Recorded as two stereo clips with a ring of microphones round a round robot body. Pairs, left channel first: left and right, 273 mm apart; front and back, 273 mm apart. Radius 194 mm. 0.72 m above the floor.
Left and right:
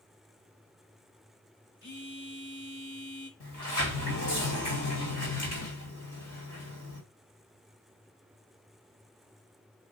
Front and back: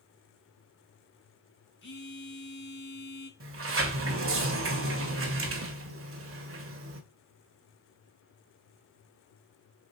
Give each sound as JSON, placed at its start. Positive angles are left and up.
{"t": 1.8, "sound": "a phone buzzing", "azimuth_deg": 45, "distance_m": 3.0}
{"t": 3.4, "sound": "a sliding door", "azimuth_deg": 140, "distance_m": 1.9}